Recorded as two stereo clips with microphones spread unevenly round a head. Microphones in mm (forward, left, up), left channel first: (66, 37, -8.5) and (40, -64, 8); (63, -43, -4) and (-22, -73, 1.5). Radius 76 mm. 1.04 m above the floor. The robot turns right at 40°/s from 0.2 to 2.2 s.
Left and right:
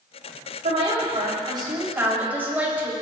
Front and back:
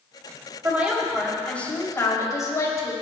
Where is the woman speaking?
95° right, 6.5 m; by 2.9 s 30° right, 6.5 m.